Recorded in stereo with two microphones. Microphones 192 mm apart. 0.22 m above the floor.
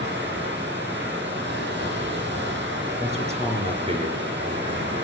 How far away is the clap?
I don't hear a clap.